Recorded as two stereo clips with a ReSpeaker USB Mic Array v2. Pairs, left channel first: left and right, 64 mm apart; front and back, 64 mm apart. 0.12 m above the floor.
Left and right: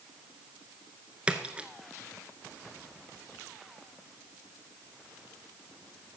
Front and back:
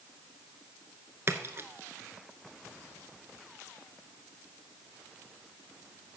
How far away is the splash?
About 0.8 m.